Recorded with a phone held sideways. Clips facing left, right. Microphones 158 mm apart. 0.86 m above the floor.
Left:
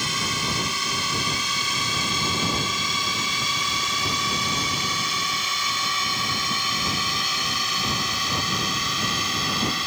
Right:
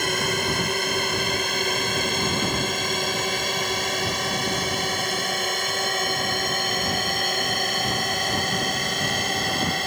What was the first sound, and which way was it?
A drone, 55° right (ahead or behind).